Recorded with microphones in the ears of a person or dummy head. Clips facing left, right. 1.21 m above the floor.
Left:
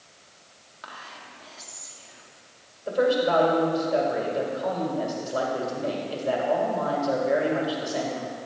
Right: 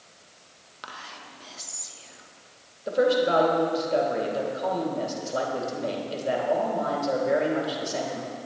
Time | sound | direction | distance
0.8 | whispering | 40° right (ahead or behind) | 1.3 m
2.9 | a woman speaking | 25° right (ahead or behind) | 2.5 m